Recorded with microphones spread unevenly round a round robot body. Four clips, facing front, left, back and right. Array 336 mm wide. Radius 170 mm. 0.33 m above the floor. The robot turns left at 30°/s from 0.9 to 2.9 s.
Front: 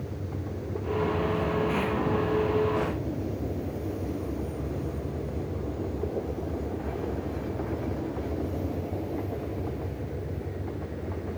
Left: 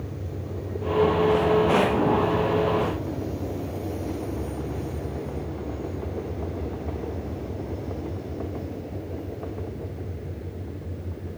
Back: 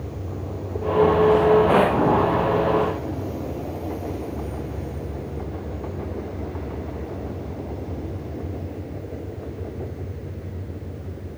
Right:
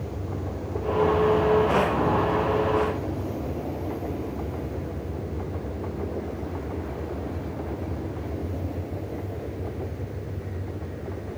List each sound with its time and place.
Only background noise.